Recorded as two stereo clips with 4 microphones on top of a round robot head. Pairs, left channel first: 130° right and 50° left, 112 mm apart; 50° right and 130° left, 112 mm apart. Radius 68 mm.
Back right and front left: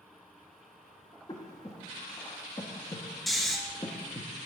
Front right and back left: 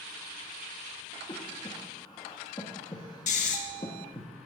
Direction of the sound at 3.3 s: 40° right.